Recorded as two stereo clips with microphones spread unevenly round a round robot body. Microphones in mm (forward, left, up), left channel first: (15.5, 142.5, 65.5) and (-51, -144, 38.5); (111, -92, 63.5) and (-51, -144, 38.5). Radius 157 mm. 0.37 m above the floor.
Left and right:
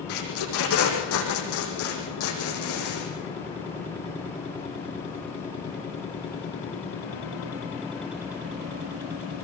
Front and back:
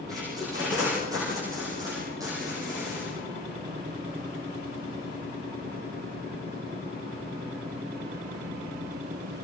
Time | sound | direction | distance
0.1 | tape being pulled | 120° left | 9 m